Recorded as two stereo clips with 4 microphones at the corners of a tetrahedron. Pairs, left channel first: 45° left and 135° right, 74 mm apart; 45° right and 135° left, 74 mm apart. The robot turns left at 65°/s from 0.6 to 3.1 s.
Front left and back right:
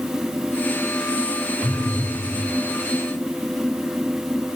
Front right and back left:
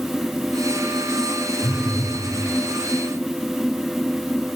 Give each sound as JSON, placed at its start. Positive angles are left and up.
{"t": 1.6, "sound": "a phone buzzing", "azimuth_deg": 0, "distance_m": 7.5}